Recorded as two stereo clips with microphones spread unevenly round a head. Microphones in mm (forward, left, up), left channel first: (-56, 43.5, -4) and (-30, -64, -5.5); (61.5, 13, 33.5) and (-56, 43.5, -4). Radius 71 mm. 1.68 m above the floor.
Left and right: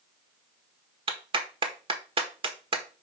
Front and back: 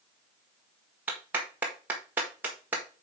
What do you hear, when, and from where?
1.1 s a clap: 110° right, 1.5 m